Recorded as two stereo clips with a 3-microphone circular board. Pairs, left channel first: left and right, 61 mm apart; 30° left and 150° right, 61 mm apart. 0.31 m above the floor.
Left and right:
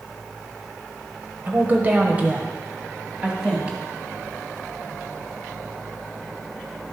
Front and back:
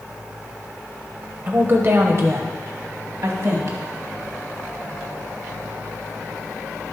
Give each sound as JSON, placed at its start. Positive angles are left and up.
{"t": 1.5, "sound": "a woman speaking", "azimuth_deg": -120, "distance_m": 1.0}